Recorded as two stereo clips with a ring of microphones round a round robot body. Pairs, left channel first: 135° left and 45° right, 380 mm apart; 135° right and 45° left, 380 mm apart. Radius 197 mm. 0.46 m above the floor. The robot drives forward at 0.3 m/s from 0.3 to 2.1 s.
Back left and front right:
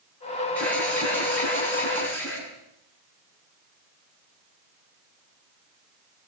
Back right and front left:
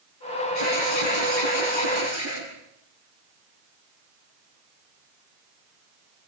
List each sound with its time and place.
0.6 s an alarm: 140° right, 8.5 m